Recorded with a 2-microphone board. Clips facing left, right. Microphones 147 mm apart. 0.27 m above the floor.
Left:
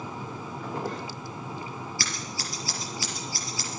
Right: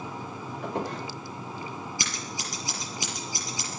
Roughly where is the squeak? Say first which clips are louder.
Right 2 dB; right.